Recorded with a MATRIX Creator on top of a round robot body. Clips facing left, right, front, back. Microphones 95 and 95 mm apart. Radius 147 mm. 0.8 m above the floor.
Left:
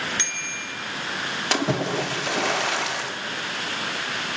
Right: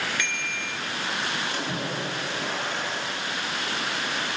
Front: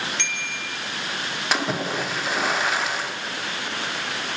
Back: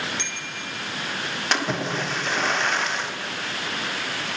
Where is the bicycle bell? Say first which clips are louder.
Right 2 dB, front 2 dB; 25° left, 2.5 m.